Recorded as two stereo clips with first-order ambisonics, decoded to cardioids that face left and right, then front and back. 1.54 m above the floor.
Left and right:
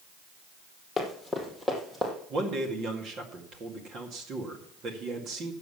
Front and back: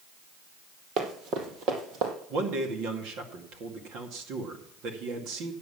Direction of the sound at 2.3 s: 145° right.